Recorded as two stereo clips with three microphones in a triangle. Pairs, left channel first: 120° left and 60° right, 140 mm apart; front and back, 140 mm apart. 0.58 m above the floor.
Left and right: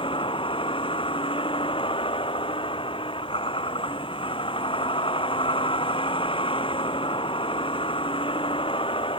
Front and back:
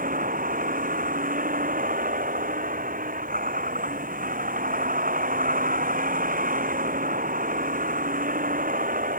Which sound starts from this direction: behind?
A vehicle, at 0.0 s.